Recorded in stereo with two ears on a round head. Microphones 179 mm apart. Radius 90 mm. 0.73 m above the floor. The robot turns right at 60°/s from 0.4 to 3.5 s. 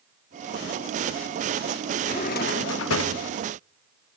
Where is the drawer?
30° left, 0.9 m; by 3.2 s 100° left, 0.9 m.